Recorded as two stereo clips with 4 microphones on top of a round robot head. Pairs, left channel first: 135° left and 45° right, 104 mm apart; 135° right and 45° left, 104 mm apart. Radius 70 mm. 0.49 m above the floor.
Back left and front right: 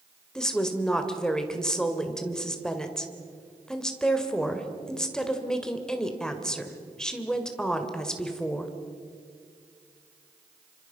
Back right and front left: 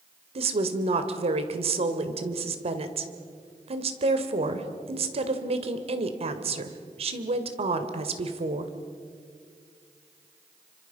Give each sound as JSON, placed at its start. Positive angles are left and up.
{"t": 0.3, "sound": "a woman speaking", "azimuth_deg": 50, "distance_m": 2.0}